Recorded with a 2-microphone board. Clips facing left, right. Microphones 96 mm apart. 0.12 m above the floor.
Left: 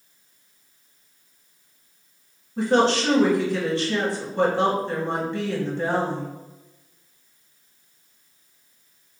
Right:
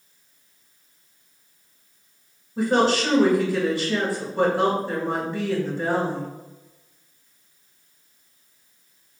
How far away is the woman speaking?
About 1.6 m.